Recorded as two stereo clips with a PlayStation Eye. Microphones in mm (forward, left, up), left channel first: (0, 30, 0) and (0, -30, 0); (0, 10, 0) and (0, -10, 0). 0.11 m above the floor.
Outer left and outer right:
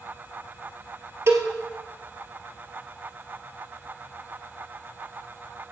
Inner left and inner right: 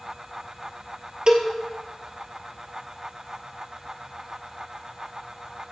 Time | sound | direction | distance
1.3 | a cowbell | 50° right (ahead or behind) | 1.7 m